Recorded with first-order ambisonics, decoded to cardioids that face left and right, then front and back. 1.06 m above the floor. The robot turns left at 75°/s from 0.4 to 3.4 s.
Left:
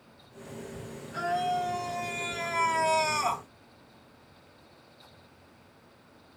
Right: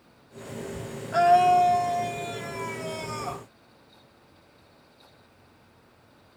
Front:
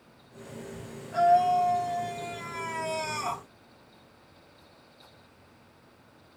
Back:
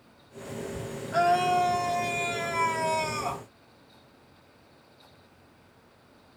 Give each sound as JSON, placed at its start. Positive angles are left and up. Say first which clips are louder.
{"t": 1.1, "sound": "a scream", "louder": "right 11 dB, front 2 dB", "azimuth_deg": -115, "distance_m": 0.7}